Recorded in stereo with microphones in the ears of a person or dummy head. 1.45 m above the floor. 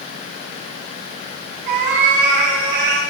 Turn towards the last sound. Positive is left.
turn(degrees=-65)  # may be behind; listen again after turning